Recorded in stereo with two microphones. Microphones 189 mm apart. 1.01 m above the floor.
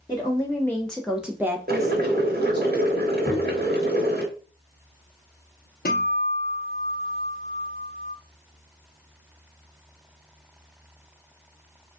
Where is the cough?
I don't hear a cough.